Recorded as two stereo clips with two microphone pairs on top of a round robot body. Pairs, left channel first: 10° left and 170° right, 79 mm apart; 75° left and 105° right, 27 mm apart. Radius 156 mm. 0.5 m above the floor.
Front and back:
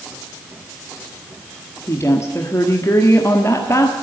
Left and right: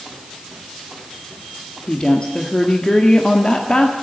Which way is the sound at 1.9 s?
45° left.